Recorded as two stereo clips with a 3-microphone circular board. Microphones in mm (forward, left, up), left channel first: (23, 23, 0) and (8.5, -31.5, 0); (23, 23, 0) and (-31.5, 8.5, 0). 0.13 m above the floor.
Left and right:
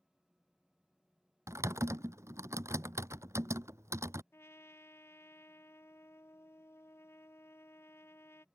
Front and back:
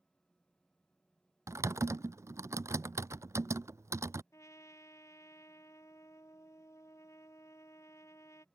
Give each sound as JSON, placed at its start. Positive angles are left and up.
{"t": 1.5, "sound": "typing on a keyboard", "azimuth_deg": -135}
{"t": 4.3, "sound": "a trumpet", "azimuth_deg": 35}